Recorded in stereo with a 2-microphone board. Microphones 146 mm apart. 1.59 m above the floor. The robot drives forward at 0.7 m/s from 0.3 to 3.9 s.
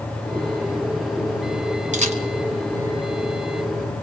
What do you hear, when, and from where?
1.9 s a camera shutter: 55° right (ahead or behind), 1.5 m; by 2.2 s 50° right (ahead or behind), 1.6 m